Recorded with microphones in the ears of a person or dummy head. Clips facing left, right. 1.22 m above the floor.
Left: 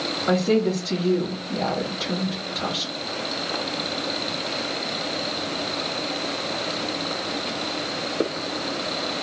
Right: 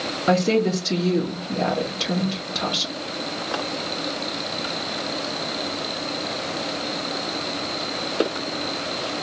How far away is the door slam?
No door slam in this recording.